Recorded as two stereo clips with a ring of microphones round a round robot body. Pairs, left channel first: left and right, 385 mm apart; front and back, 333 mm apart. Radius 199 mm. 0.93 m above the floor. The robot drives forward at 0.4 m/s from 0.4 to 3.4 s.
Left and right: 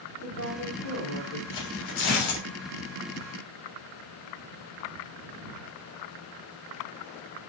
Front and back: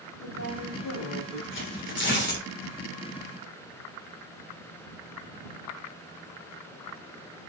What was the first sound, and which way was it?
A woman speaking, 35° left.